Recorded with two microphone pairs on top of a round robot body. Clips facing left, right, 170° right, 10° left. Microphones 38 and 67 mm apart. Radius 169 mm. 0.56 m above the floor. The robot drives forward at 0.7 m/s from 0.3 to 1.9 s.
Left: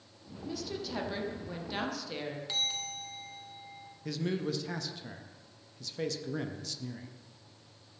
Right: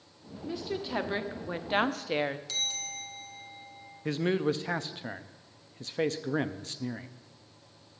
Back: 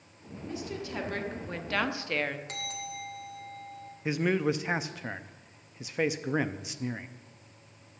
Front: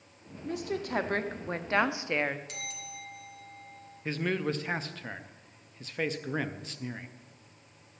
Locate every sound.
0.5 s a woman speaking: 25° right, 1.6 m; by 2.4 s 65° right, 1.0 m
2.5 s a bell: 155° left, 2 m
4.0 s a man speaking: 110° right, 0.8 m